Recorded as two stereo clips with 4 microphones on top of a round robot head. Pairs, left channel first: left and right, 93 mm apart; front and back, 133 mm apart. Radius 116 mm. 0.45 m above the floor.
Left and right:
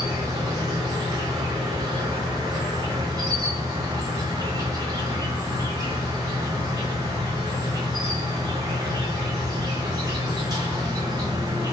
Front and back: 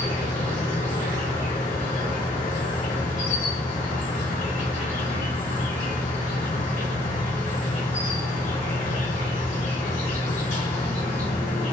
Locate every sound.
0.0 s an insect: 45° right, 0.9 m